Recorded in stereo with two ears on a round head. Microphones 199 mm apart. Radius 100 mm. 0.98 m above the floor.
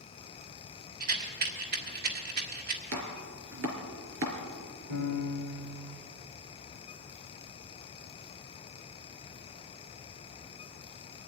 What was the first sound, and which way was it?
A rattle, 45° right (ahead or behind).